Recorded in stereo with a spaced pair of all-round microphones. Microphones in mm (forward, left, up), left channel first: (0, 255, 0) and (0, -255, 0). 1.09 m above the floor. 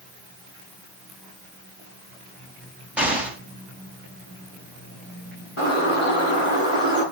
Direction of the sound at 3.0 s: Centre (ahead or behind).